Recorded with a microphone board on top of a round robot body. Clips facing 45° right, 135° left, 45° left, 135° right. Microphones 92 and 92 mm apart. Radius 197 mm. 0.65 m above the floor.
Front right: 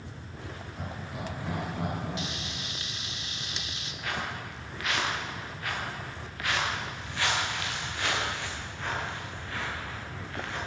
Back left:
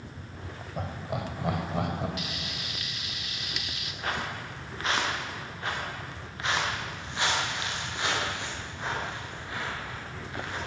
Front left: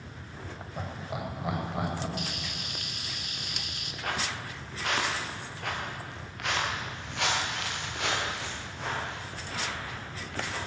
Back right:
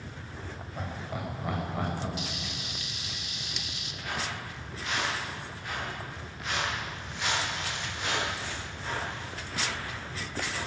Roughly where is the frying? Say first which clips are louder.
Front right 1 dB, even; ahead.